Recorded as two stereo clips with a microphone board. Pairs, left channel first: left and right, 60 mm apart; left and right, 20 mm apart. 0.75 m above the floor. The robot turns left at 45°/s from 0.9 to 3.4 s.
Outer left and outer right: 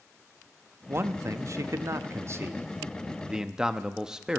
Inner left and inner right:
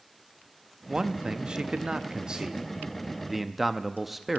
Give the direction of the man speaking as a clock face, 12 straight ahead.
2 o'clock.